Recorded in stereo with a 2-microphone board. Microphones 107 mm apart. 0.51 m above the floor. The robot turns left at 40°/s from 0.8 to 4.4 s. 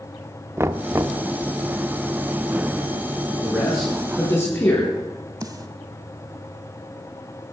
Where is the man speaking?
165° right, 4.5 m; by 4.9 s 155° left, 4.5 m.